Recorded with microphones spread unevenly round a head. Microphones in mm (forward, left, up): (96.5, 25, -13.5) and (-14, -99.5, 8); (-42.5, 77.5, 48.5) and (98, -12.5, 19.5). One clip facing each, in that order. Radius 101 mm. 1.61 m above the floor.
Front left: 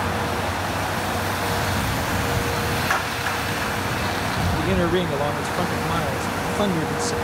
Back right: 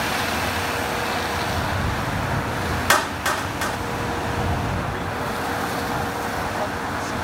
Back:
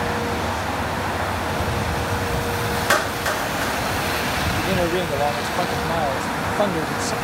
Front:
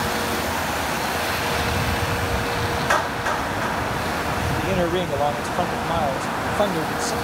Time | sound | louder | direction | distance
2.9 | a clap | back right 3 dB, back 1 dB | 155° right | ?
4.6 | a man speaking | front left 7 dB, even | 60° left | ?